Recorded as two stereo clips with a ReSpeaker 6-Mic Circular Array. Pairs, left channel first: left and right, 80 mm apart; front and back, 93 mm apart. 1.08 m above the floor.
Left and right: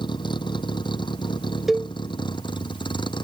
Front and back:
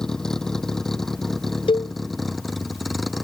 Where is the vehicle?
85° left; by 3.2 s 90° left.